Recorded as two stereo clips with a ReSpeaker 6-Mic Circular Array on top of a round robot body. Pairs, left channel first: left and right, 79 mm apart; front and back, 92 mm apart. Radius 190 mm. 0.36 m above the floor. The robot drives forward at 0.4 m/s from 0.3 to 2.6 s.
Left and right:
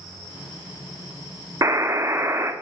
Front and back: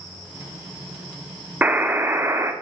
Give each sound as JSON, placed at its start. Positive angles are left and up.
{"t": 1.6, "sound": "a buzzer", "azimuth_deg": -115, "distance_m": 1.6}